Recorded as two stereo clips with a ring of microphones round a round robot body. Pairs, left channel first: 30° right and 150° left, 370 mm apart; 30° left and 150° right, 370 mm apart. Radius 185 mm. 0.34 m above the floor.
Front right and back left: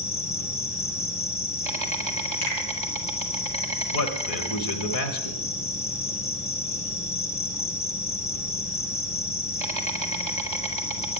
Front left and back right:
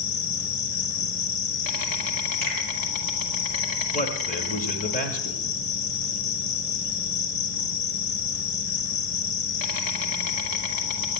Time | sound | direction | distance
0.0 | an insect | 45° left | 1.6 m
2.4 | a finger snap | straight ahead | 6.5 m
3.9 | a man speaking | 35° right | 1.3 m